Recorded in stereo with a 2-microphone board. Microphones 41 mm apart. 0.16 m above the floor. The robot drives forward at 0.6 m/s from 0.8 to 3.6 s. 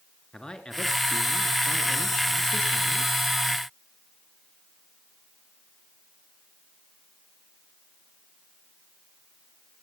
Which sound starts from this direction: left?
A man speaking, at 0.3 s.